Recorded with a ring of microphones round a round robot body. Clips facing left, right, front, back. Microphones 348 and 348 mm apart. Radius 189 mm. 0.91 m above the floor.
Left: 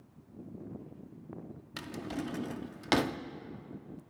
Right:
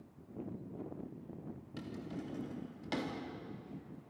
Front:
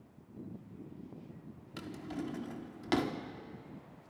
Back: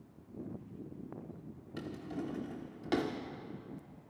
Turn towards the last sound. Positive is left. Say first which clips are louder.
# left 6 dB, even
turn(degrees=75)